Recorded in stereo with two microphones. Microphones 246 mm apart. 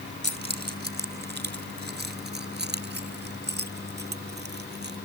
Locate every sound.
0.2 s keys jangling: 45° right (ahead or behind)